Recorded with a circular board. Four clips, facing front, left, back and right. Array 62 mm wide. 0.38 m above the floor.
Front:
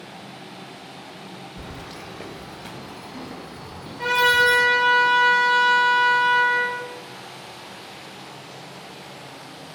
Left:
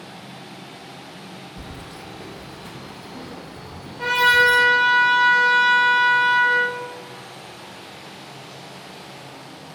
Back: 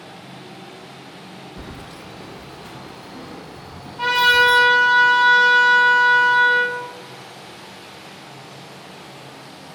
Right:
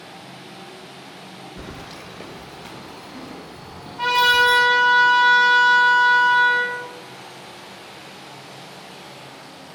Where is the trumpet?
125° right, 2.5 m.